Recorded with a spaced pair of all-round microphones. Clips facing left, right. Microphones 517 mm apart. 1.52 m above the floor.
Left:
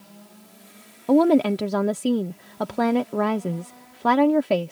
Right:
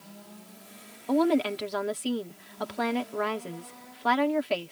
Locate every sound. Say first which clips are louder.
1.1 s a woman speaking: left 7 dB; 70° left (ahead or behind)